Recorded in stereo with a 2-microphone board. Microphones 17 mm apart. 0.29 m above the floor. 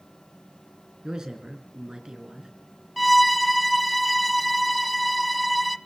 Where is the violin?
Centre (ahead or behind), 0.9 m.